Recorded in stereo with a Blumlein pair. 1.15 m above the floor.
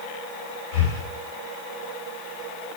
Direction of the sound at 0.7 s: 40° left.